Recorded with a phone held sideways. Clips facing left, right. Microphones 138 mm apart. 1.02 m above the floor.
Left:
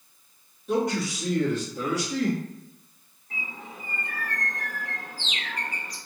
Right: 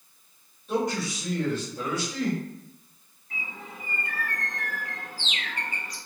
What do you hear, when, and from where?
0.7 s a man speaking: 85° left, 1.3 m
3.3 s a bird: 35° left (ahead or behind), 1.7 m